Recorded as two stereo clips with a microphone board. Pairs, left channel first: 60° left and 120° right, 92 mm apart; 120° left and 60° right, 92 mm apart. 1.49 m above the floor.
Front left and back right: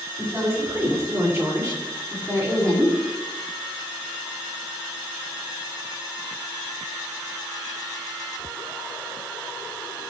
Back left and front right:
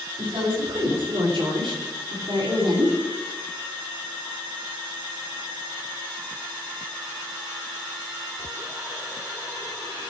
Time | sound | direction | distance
0.2 | a woman speaking | 60° right | 6 m